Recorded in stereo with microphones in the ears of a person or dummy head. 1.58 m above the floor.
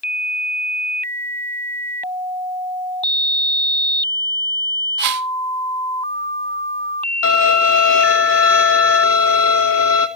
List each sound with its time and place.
5.0 s a whoosh: 60° right (ahead or behind), 1.3 m
7.2 s a violin: 80° left, 4 m